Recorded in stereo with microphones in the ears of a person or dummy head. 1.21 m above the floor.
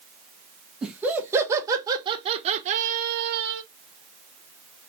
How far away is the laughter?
About 1.6 m.